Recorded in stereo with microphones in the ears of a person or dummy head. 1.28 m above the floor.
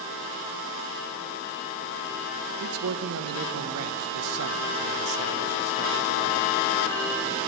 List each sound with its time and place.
2.6 s a man speaking: 75° right (ahead or behind), 0.9 m